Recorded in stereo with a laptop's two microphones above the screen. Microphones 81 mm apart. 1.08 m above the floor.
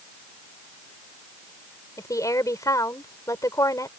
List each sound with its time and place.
2.0 s a woman speaking: 45° left (ahead or behind)